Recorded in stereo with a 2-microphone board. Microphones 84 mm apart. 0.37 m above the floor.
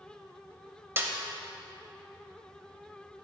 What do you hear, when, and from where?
1.0 s a snare drum: 25° right (ahead or behind), 0.6 m